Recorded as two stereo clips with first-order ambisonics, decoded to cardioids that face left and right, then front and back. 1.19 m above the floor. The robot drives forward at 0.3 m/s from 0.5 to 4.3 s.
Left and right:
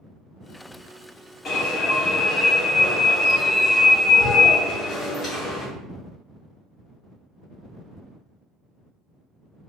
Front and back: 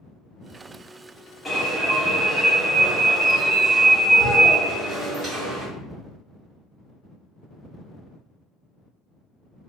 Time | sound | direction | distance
1.4 | an alarm | 65° left | 0.8 m